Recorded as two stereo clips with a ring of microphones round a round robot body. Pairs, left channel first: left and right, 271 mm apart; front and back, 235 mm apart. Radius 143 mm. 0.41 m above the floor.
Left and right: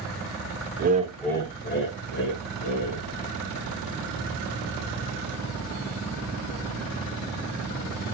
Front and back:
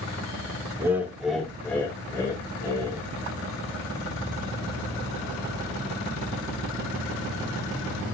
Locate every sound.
0.8 s laughter: 105° right, 1.0 m; by 3.0 s 75° left, 2.5 m